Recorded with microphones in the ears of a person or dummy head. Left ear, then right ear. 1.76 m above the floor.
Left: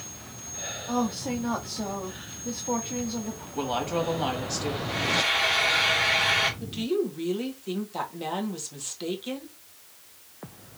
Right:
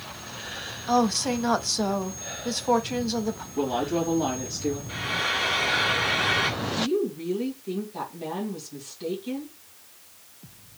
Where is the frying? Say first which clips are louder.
Left 4 dB; 5° left (ahead or behind), 2.0 m.